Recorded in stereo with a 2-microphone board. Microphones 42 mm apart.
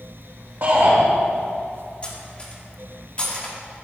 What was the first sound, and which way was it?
A shout, 55° right (ahead or behind).